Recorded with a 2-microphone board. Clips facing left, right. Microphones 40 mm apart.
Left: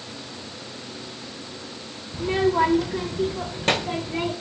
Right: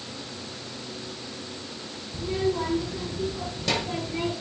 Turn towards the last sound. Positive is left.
turn(degrees=30)  # may be behind; listen again after turning